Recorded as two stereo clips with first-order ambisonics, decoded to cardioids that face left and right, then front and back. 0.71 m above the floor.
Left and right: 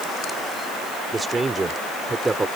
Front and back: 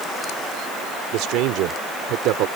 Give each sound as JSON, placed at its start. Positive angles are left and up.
{"t": 1.1, "sound": "a man speaking", "azimuth_deg": -165}